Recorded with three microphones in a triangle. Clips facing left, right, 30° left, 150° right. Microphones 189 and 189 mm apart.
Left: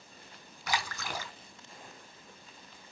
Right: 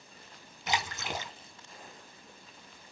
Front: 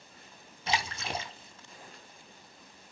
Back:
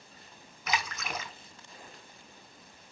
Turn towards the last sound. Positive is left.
turn(degrees=-30)